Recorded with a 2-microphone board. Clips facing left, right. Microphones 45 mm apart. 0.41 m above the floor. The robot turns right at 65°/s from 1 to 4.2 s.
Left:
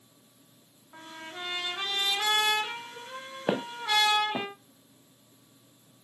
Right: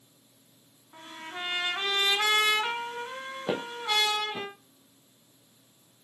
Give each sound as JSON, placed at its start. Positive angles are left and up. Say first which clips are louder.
{"t": 0.9, "sound": "a trumpet", "louder": "right 2 dB", "azimuth_deg": 170, "distance_m": 2.5}
{"t": 3.5, "sound": "footsteps", "louder": "left 2 dB", "side_deg": 35, "distance_m": 1.2}